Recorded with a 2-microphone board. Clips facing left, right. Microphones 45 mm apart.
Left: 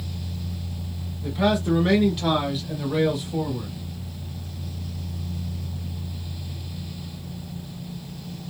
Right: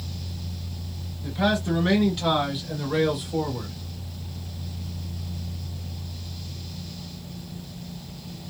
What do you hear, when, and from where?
1.2 s a man speaking: 15° left (ahead or behind), 1.6 m; by 3.8 s 20° right (ahead or behind), 1.4 m